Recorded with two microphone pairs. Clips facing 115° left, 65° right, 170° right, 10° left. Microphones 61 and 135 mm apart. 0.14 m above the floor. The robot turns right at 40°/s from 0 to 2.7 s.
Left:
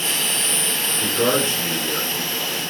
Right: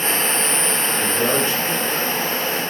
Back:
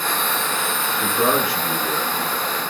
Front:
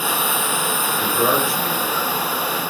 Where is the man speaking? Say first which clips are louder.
Left 2 dB, even; 140° left, 1.1 m; by 2.6 s 155° right, 1.1 m.